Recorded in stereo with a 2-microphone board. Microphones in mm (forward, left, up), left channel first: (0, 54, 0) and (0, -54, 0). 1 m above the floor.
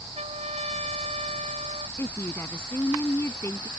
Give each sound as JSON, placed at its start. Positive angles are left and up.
{"t": 0.1, "sound": "a trumpet", "side_deg": -85}
{"t": 2.0, "sound": "a woman speaking", "side_deg": 20}